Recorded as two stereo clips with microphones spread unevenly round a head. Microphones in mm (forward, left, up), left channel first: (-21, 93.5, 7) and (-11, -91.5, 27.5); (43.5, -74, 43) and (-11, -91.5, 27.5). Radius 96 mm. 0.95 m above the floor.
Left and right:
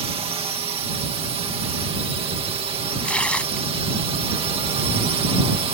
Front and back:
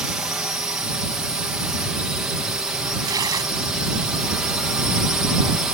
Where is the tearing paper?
Straight behind.